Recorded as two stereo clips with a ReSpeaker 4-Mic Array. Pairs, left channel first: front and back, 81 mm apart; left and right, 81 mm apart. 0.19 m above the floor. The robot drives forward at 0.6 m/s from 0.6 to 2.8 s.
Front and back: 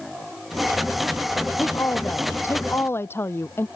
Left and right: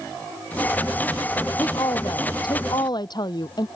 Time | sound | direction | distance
1.6 | a woman speaking | 55° left | ?